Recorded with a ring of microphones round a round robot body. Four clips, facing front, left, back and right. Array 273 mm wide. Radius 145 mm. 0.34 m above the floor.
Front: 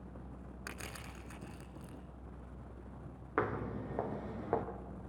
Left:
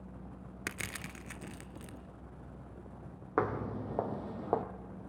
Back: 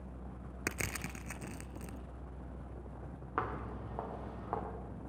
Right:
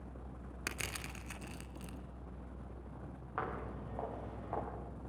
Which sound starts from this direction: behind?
Crushing, at 0.7 s.